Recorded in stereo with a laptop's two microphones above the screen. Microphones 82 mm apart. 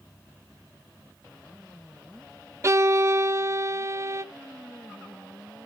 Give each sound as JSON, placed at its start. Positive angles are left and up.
{"t": 2.6, "sound": "a violin", "side_deg": -35, "distance_m": 0.6}